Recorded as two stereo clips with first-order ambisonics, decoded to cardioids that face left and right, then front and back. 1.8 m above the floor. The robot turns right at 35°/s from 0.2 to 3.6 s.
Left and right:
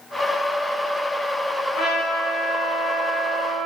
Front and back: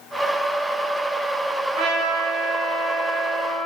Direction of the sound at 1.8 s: 160° left.